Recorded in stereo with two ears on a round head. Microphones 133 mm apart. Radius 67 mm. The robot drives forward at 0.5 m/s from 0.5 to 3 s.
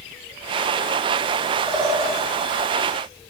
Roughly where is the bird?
Right.